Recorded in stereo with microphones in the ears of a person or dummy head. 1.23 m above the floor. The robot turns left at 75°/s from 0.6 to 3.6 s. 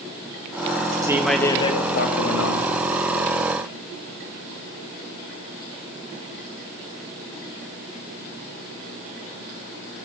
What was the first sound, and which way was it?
A man speaking, 165° right.